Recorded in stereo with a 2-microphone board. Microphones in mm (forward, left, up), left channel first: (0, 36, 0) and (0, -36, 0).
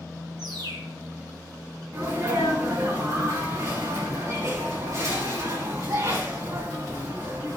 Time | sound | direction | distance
0.4 | a bird | 80° right | 1.4 m
1.9 | a sneeze | 45° right (ahead or behind) | 4.5 m